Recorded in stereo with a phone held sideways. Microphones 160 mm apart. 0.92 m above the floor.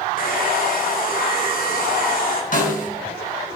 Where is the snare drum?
55° left (ahead or behind), 4 m.